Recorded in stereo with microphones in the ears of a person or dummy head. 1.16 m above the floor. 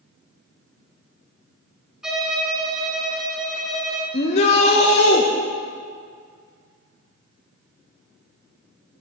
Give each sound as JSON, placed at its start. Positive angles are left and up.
{"t": 2.0, "sound": "a violin", "side_deg": -5, "distance_m": 1.4}
{"t": 4.1, "sound": "a shout", "side_deg": 35, "distance_m": 0.8}